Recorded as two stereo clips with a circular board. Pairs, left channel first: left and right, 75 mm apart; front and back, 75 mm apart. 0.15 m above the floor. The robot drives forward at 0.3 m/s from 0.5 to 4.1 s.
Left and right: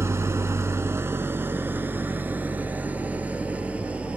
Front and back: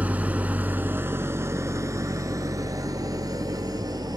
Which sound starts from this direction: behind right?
An engine running, at 0.0 s.